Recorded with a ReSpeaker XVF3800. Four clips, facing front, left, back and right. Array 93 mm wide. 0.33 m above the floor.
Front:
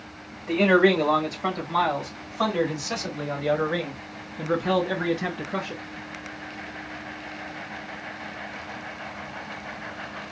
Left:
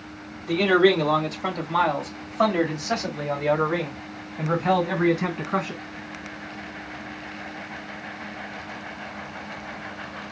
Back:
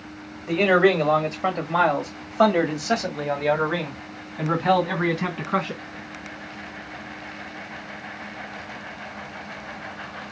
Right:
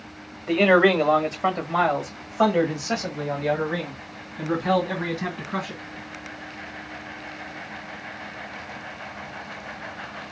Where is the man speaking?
105° right, 1.6 m; by 5.8 s 160° left, 3 m.